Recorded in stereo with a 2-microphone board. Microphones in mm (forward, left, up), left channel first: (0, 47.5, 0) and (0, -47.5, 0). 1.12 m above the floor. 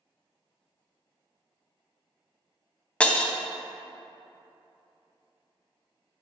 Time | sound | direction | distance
3.0 | breaking glass | 10° left (ahead or behind) | 0.6 m